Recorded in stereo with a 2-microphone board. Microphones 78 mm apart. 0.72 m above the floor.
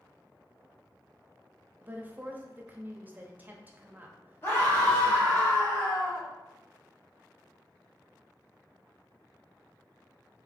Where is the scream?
30° left (ahead or behind), 2 m.